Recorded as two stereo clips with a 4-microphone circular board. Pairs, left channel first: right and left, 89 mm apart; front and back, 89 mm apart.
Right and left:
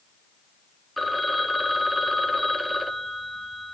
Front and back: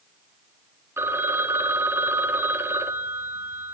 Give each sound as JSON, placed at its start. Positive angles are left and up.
{"t": 1.0, "sound": "a phone ringing", "azimuth_deg": 180, "distance_m": 0.5}